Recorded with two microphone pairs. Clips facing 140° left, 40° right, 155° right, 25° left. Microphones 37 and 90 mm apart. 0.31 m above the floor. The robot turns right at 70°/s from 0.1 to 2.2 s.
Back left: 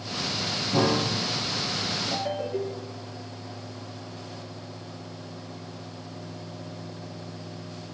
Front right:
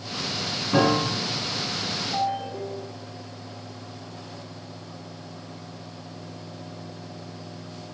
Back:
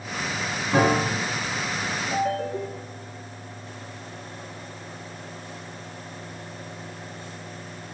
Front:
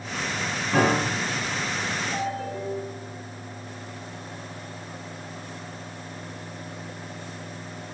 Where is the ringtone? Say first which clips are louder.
Front right 5 dB, back 4 dB; 170° left, 3 m; by 3.1 s 175° left, 3 m.